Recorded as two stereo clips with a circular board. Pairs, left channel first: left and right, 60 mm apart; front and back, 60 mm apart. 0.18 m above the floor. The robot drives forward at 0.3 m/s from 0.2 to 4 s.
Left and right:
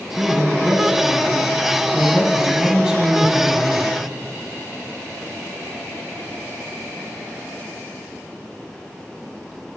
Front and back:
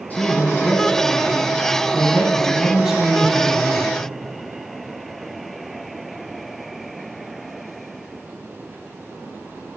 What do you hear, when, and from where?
0.1 s a man speaking: 15° right, 1.3 m; by 3.9 s 155° right, 1.1 m